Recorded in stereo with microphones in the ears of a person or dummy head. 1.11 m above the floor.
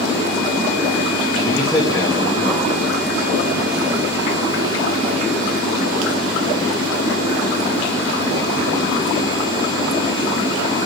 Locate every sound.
1.4 s a man speaking: 5° left (ahead or behind), 1.7 m; by 3.5 s 15° right (ahead or behind), 3 m